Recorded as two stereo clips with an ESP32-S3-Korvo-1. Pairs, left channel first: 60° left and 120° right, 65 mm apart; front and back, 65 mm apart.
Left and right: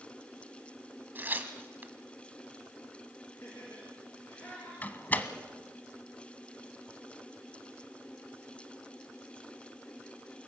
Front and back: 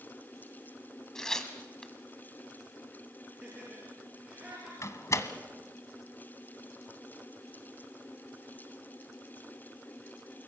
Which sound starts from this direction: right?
Tearing paper, at 1.1 s.